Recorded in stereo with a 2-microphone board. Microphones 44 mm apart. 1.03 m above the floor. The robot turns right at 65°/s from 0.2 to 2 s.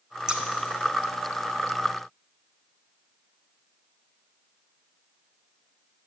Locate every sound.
0.3 s scissors: 15° right (ahead or behind), 0.7 m; by 0.4 s 25° right (ahead or behind), 0.7 m